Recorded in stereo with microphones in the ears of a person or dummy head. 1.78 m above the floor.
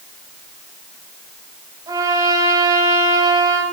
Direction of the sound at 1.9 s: 20° right (ahead or behind).